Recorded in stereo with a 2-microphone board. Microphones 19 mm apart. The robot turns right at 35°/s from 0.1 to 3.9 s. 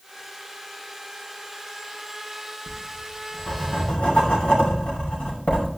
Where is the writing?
55° left (ahead or behind), 7.5 m; by 5.8 s 80° left, 7.5 m.